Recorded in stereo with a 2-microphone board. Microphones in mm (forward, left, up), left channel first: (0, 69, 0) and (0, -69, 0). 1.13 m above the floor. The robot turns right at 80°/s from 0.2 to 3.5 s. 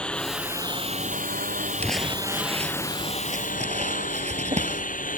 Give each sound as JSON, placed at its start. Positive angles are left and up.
{"t": 0.0, "sound": "a lawn mower", "azimuth_deg": 170}
{"t": 1.8, "sound": "crumpling", "side_deg": 15}